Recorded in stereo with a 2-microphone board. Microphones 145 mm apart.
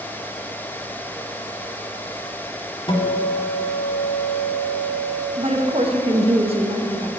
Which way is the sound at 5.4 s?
40° right (ahead or behind).